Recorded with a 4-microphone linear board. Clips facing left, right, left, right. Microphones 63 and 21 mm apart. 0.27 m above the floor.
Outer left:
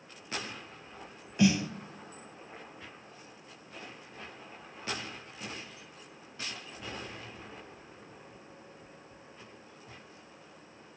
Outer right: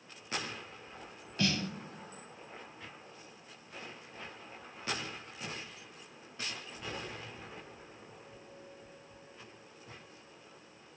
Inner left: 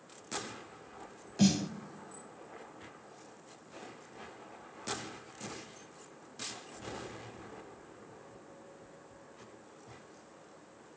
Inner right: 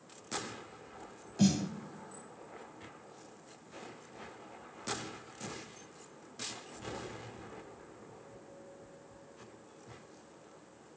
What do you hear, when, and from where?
1.4 s a snare drum: 15° left (ahead or behind), 0.6 m